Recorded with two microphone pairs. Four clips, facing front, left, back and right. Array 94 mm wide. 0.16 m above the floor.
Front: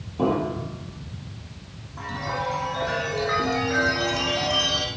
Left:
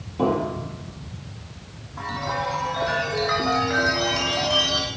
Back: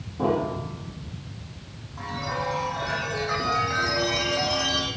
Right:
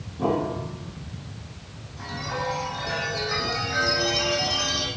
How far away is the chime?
About 5 m.